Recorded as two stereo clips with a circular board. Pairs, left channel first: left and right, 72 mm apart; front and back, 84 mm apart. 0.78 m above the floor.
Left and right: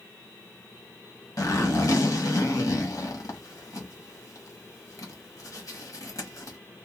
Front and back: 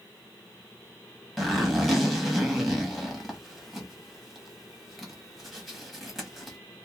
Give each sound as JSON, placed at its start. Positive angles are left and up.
{"t": 1.4, "sound": "a zipper", "azimuth_deg": 90, "distance_m": 1.1}